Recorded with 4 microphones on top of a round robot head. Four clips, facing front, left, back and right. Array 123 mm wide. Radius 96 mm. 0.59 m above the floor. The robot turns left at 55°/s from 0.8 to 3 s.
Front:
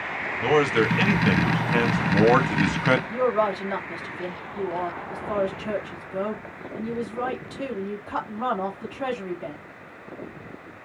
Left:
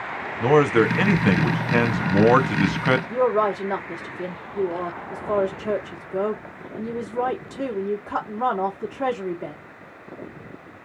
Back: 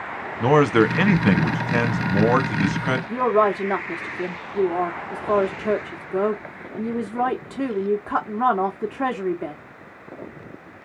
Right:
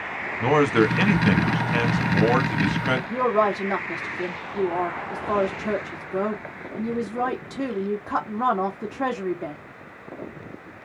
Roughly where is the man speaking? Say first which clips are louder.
Left 2 dB, back 4 dB; behind.